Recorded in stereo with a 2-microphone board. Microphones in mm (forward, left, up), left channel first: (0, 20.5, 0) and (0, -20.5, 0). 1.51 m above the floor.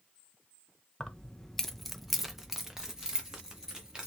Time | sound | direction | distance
1.0 | keys jangling | 20° left (ahead or behind) | 0.6 m